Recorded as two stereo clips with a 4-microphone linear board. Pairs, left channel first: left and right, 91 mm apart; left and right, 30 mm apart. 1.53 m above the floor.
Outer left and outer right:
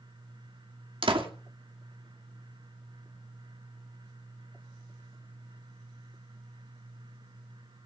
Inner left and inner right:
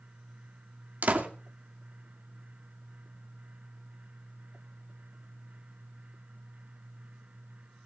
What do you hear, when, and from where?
1.0 s a door slam: 75° right (ahead or behind), 2.5 m